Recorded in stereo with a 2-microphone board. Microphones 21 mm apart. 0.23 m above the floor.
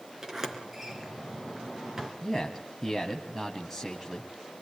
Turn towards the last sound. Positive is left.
turn(degrees=5)  # may be behind; listen again after turning